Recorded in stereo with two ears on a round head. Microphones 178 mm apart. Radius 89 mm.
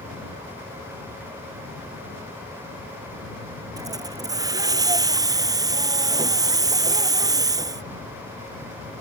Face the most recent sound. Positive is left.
turn(degrees=-20)  # may be behind; listen again after turning